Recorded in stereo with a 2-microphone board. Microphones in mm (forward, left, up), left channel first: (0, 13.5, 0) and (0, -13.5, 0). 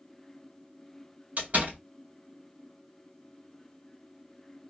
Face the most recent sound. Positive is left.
turn(degrees=-65)  # may be behind; listen again after turning